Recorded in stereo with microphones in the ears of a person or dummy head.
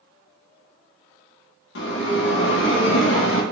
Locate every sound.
1.8 s a bell: 75° left (ahead or behind), 0.7 m